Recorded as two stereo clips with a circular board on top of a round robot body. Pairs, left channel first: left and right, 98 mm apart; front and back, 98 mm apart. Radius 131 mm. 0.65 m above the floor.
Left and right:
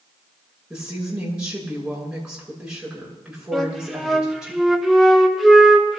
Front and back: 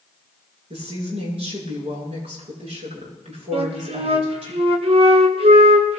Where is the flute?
Straight behind, 2 m.